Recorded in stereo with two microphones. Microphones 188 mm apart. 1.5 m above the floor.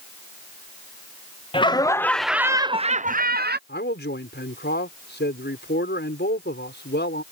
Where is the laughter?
30° left (ahead or behind); by 3.6 s 65° right (ahead or behind).